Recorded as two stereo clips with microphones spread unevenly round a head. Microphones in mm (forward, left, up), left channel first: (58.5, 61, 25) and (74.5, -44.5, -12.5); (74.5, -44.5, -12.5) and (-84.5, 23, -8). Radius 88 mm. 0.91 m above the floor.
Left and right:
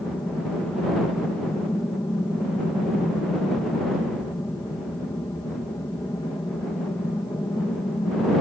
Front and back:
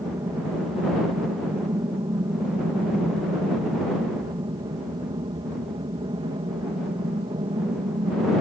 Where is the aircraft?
175° left; by 8.4 s 150° left.